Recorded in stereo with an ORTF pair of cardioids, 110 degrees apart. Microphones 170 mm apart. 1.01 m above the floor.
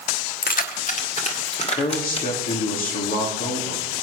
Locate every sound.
0.4 s keys jangling: 55° left, 1.1 m; by 2.6 s 35° left, 3 m
1.7 s a man speaking: 60° left, 2.5 m